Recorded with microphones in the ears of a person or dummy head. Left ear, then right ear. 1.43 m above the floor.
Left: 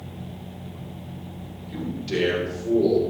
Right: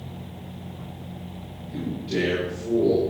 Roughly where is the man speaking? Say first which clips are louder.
Left 1 dB; left.